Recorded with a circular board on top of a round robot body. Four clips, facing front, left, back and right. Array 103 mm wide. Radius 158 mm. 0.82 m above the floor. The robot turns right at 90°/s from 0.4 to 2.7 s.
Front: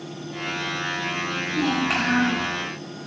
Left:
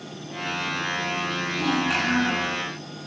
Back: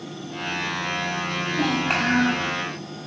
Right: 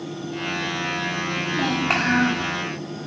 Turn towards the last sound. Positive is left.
turn(degrees=-35)